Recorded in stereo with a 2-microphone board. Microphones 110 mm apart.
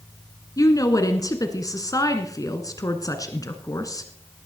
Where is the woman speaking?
35° left (ahead or behind), 1.6 m.